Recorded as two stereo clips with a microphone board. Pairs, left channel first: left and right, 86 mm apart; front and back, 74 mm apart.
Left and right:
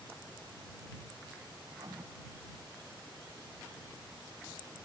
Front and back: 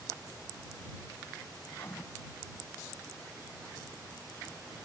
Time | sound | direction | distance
1.7 | writing | 55° right | ?